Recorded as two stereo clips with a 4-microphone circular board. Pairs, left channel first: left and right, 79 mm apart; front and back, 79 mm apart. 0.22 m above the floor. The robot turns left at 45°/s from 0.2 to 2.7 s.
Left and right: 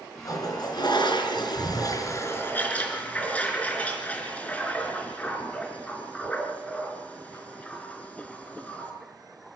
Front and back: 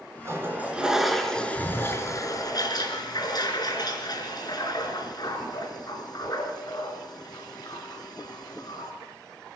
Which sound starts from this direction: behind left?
A toilet flushing, at 0.2 s.